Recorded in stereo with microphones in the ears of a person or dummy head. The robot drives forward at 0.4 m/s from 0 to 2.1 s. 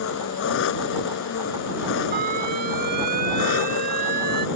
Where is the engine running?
70° left (ahead or behind); by 4.6 s 65° left (ahead or behind).